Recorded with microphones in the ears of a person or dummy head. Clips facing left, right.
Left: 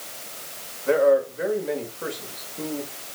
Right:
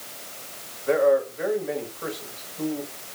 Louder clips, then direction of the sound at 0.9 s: Left 1 dB; 50° left (ahead or behind).